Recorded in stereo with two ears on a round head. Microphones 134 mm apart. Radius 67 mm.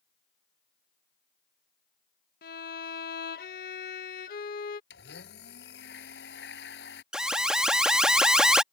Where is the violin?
70° left (ahead or behind).